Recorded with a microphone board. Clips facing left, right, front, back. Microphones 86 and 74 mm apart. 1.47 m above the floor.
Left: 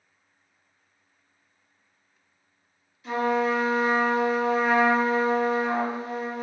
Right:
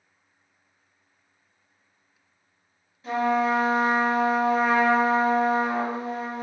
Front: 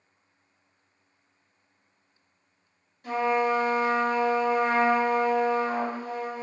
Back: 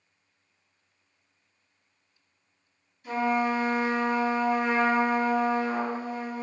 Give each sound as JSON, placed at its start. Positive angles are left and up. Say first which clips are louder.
{"t": 3.0, "sound": "a trumpet", "louder": "right 1 dB, front 1 dB", "azimuth_deg": -35, "distance_m": 1.3}